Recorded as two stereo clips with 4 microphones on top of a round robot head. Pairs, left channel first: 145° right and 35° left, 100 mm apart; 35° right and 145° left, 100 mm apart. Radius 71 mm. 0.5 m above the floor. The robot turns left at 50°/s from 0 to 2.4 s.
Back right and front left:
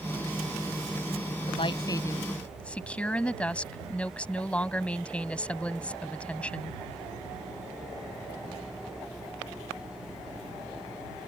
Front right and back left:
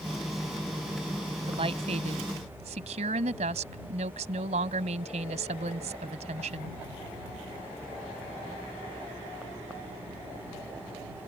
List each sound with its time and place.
1.5 s a woman speaking: 175° right; by 6.8 s 140° left